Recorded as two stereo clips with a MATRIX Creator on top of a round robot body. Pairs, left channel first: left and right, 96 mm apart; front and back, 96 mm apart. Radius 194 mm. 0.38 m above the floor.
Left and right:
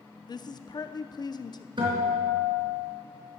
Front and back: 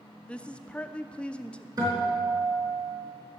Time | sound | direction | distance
0.3 | a woman speaking | 75° left | 1.0 m
1.8 | a guitar | 130° right | 4 m